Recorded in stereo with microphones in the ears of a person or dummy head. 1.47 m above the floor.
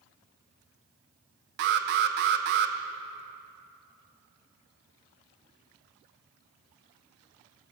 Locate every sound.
1.6 s an alarm: 55° right (ahead or behind), 0.6 m